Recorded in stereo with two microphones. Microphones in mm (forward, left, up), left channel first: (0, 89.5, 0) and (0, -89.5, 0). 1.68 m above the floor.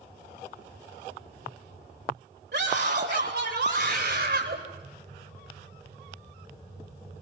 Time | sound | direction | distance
2.5 | a scream | 75° right (ahead or behind) | 8 m